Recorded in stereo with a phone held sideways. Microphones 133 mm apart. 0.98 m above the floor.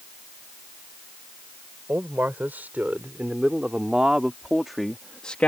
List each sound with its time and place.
1.9 s a man speaking: 15° right (ahead or behind); by 5.5 s 10° left (ahead or behind)